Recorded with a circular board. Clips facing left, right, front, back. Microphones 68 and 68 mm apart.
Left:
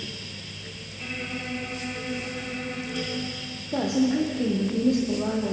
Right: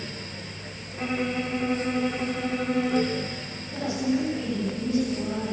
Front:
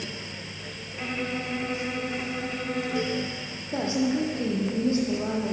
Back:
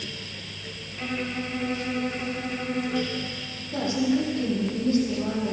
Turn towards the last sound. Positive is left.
turn(degrees=65)